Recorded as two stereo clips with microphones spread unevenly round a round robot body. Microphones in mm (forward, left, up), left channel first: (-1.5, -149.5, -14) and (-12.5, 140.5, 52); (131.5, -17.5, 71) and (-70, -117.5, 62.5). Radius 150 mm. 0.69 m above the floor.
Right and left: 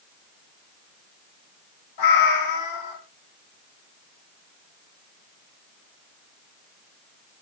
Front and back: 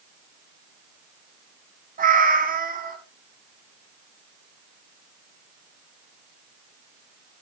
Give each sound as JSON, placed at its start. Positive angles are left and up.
{"t": 2.0, "sound": "a cat meowing", "azimuth_deg": -100, "distance_m": 3.0}